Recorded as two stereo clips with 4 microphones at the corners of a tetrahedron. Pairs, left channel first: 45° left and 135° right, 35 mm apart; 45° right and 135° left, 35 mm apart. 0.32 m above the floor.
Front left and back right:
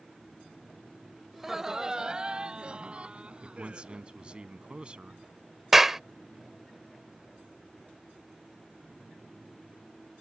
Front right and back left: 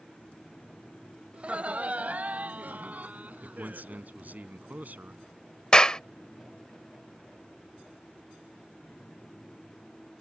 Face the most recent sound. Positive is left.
turn(degrees=-70)